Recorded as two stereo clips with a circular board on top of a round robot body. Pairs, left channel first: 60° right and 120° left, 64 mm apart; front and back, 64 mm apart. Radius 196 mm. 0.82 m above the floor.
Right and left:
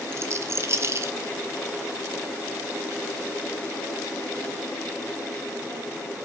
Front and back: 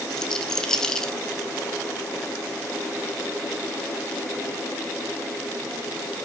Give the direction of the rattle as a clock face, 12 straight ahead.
9 o'clock.